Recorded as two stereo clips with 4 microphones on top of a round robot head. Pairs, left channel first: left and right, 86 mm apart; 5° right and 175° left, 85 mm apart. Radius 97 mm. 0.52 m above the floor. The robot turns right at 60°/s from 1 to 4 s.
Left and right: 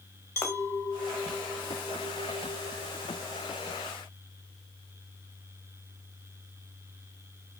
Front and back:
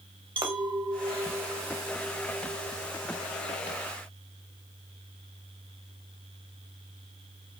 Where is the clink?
150° left, 1.6 m; by 3.8 s 45° right, 1.6 m.